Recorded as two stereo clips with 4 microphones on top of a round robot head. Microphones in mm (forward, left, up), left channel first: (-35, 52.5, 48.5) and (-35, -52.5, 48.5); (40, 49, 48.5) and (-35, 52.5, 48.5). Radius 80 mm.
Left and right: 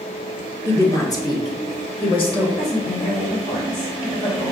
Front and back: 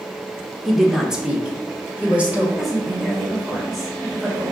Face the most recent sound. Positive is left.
turn(degrees=85)